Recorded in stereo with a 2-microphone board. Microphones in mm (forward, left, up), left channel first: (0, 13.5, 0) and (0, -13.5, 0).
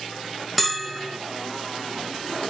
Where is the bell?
5° right (ahead or behind), 0.8 m.